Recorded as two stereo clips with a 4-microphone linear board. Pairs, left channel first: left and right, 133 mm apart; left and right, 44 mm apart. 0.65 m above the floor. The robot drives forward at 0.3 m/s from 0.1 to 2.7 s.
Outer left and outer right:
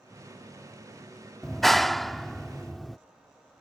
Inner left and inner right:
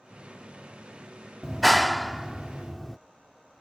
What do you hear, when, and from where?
1.4 s a clap: centre (ahead or behind)